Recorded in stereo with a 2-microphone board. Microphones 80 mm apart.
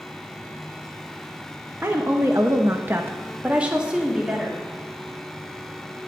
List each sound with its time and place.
1.8 s a woman speaking: 25° right (ahead or behind), 1.3 m; by 4.6 s 5° right (ahead or behind), 3 m